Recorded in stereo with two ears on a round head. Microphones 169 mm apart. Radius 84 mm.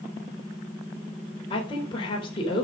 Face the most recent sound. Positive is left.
turn(degrees=25)  # may be behind; listen again after turning